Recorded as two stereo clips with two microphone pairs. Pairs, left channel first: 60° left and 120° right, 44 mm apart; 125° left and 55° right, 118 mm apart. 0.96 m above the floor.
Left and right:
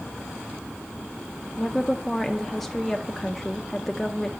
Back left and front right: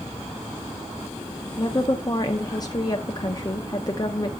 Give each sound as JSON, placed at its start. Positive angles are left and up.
{"t": 1.6, "sound": "a woman speaking", "azimuth_deg": 140, "distance_m": 0.7}